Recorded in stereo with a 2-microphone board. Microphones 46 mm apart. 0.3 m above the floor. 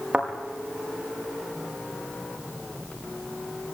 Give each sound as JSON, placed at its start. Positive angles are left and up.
{"t": 0.1, "sound": "a thud", "side_deg": -30, "distance_m": 6.0}